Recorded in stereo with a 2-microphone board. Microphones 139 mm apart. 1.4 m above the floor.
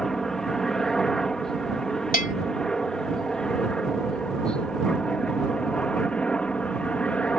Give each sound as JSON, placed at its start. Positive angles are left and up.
{"t": 0.0, "sound": "a helicopter", "side_deg": 5}
{"t": 2.1, "sound": "a bell", "side_deg": 80}